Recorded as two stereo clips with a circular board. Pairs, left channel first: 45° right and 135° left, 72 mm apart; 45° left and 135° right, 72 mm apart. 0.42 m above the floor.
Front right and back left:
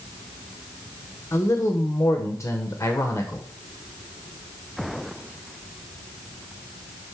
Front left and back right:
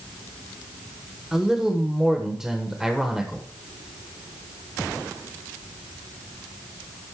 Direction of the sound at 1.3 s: 55° right.